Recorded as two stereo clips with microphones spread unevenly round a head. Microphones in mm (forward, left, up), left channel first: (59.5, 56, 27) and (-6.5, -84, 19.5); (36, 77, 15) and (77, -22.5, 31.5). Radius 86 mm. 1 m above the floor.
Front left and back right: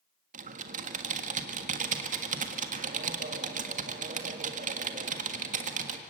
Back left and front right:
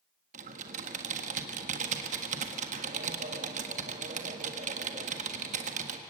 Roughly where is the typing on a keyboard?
Right.